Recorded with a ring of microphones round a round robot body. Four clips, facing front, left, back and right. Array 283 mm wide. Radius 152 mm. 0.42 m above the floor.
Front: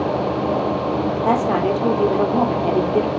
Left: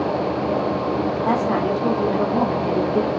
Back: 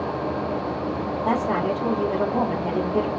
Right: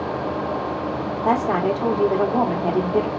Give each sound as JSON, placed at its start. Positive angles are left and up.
{"t": 1.2, "sound": "a woman speaking", "azimuth_deg": -55, "distance_m": 1.6}